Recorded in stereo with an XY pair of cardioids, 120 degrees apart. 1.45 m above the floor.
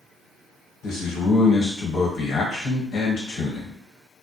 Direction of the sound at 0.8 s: 65° left.